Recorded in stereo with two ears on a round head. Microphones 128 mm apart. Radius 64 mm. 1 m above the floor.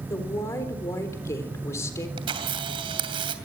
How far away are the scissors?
I don't hear scissors.